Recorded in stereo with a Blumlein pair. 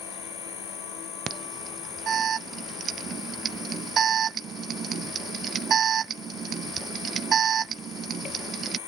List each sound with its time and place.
0.0 s an insect: 30° left
1.3 s an alarm: 25° right